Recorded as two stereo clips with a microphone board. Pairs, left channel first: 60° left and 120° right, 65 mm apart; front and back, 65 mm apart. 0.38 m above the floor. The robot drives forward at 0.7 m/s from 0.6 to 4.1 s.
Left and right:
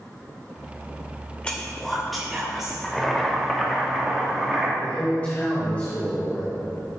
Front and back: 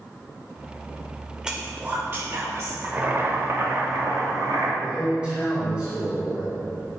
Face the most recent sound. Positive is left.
turn(degrees=115)